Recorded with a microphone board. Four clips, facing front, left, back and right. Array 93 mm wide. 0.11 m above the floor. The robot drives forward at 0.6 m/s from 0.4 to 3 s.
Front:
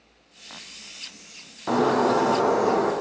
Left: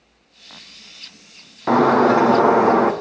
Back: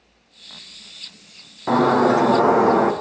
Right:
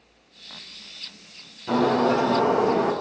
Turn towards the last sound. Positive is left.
turn(degrees=115)